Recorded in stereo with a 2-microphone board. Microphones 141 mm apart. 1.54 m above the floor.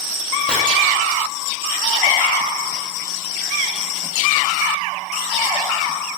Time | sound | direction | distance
0.5 | chopping | 5° left (ahead or behind) | 6.5 m